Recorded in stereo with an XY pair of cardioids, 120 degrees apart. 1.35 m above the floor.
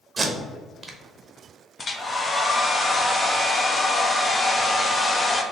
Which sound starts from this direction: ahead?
Tape being pulled, at 0.2 s.